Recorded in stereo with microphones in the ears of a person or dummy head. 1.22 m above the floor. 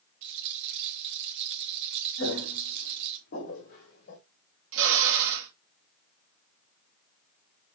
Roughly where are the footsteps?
Left.